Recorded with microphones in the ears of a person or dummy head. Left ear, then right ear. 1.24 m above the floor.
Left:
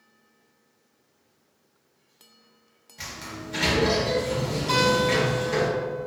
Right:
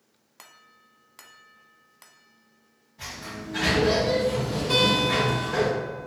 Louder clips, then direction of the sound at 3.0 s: Even; 65° left (ahead or behind).